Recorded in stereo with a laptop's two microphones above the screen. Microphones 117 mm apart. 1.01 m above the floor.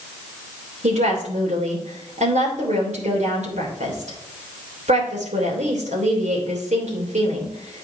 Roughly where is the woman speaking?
Right.